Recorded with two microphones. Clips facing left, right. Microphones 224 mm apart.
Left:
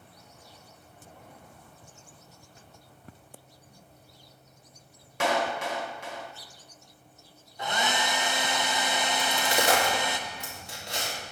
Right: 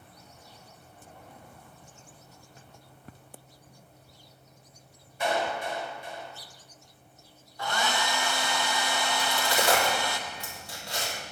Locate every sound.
5.2 s a clap: 85° left, 0.8 m
7.6 s a hair dryer: 20° left (ahead or behind), 0.5 m
9.2 s a crack: 20° left (ahead or behind), 2.5 m